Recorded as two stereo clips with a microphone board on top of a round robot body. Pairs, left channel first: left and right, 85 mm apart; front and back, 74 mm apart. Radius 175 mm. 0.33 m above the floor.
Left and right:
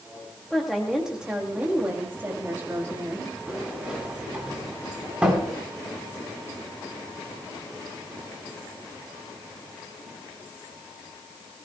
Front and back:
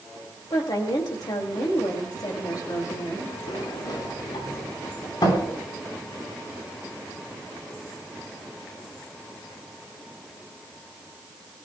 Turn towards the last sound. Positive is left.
turn(degrees=-10)